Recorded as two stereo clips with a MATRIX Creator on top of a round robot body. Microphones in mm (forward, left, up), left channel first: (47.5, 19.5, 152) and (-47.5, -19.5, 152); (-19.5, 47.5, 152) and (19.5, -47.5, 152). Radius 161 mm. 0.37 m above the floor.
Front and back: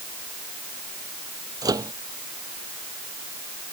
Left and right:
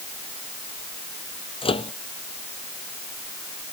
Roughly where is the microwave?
Behind left.